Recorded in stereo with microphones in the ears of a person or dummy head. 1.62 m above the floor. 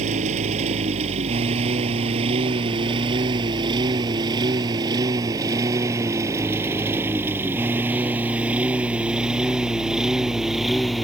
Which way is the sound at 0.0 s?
40° right (ahead or behind).